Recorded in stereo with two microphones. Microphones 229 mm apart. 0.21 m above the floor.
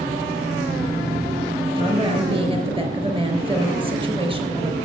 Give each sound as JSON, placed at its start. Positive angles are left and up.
{"t": 0.0, "sound": "an engine running", "side_deg": -15, "distance_m": 7.5}
{"t": 1.8, "sound": "a woman speaking", "side_deg": -25, "distance_m": 3.5}